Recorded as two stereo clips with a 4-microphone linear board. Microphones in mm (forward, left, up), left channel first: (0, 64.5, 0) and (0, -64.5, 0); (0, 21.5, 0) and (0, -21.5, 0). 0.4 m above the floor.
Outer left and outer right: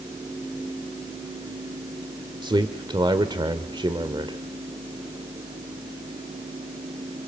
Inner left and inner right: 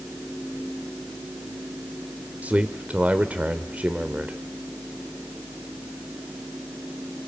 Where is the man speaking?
35° right (ahead or behind), 1.3 m.